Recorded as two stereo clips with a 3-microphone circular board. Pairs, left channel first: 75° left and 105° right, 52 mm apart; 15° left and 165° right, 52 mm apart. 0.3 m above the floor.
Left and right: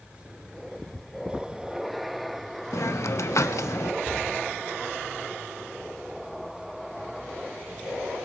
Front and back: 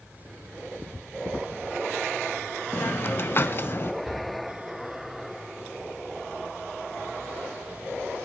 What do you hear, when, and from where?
2.7 s a hiss: 60° left, 0.6 m
4.0 s a cupboard door: 110° right, 9.5 m